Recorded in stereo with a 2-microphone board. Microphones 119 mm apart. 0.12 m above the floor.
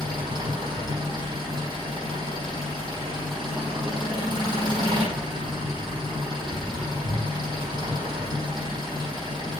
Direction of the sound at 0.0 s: 35° right (ahead or behind).